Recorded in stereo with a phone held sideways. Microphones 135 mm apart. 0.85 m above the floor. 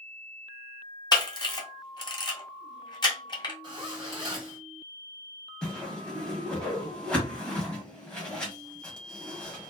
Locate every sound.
1.1 s a camera shutter: 30° left (ahead or behind), 0.7 m
3.6 s a zipper: 30° right (ahead or behind), 1.2 m
5.6 s a whoosh: 5° left (ahead or behind), 0.9 m